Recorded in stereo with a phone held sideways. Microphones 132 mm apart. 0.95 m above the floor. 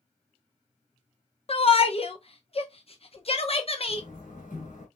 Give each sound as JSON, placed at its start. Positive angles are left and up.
{"t": 1.5, "sound": "a shout", "side_deg": 45, "distance_m": 0.7}
{"t": 3.9, "sound": "a door slam", "side_deg": 80, "distance_m": 3.0}